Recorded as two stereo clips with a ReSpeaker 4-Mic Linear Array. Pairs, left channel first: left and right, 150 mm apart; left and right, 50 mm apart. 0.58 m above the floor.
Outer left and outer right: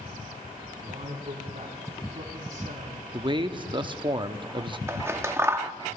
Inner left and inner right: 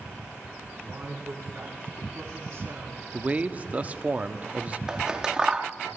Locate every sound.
0.8 s a man speaking: 55° right (ahead or behind), 4.5 m
3.1 s a man speaking: 35° right (ahead or behind), 0.6 m
4.9 s scissors: 15° right (ahead or behind), 0.5 m